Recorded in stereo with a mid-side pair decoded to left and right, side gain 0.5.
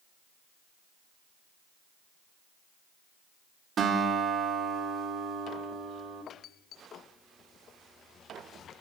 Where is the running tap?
No running tap in this recording.